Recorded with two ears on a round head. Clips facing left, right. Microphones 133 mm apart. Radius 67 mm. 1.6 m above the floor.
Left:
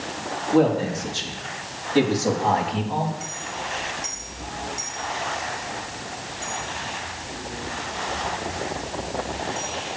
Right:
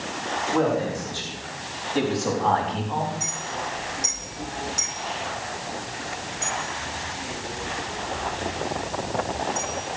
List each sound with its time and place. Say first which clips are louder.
0.5 s a man speaking: left 4 dB; 30° left (ahead or behind), 5 m; by 3.1 s 10° left (ahead or behind), 3.5 m
3.2 s a clink: right 1 dB; 65° right (ahead or behind), 8.5 m